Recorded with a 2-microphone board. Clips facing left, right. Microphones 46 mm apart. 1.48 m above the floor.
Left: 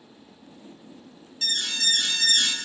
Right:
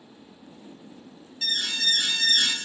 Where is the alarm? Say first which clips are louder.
Even; 10° right (ahead or behind), 0.9 m.